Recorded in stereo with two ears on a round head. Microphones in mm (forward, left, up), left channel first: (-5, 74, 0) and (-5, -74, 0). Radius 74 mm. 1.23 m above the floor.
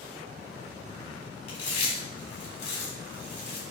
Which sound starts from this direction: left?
Chewing, at 1.5 s.